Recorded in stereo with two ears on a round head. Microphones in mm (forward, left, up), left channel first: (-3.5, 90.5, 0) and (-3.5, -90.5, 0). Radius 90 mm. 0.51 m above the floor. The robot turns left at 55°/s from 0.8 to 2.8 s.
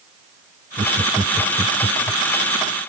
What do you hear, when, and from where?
0.8 s laughter: 25° right (ahead or behind); by 2.2 s 50° left (ahead or behind)